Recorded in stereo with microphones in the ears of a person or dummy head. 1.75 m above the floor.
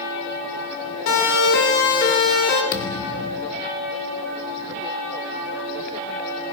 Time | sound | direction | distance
1.1 | a siren | 65° left (ahead or behind) | 5 m
2.7 | a thud | 55° left (ahead or behind) | 2 m